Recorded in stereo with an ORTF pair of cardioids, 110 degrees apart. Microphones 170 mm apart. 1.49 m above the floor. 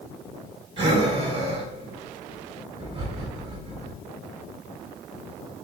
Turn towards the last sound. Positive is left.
turn(degrees=-30)